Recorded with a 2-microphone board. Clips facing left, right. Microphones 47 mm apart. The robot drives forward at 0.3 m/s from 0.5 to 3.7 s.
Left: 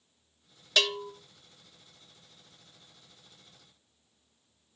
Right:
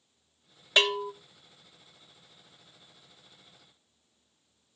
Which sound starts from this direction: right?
A bell, at 0.8 s.